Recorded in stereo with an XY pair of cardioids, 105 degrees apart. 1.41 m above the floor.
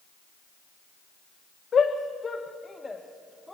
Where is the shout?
40° left, 1.3 m; by 3.5 s 5° left, 1.7 m.